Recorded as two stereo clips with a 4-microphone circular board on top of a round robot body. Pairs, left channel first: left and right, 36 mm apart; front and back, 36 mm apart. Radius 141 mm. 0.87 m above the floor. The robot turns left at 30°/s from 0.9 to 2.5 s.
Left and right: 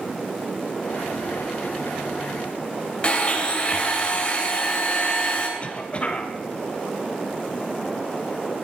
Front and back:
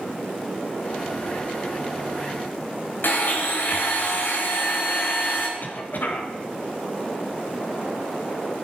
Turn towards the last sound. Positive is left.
turn(degrees=35)